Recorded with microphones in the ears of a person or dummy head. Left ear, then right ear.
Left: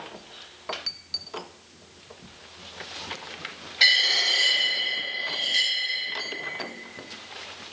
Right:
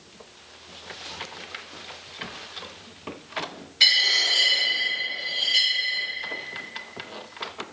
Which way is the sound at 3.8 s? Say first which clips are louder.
Right 1 dB; 20° right (ahead or behind).